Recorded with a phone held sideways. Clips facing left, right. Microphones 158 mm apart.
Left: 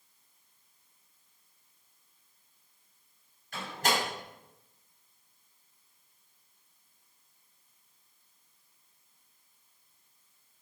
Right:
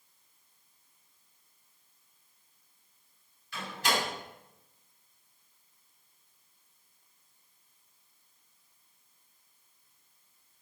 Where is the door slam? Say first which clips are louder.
Left 1 dB; 50° left (ahead or behind), 5.5 m.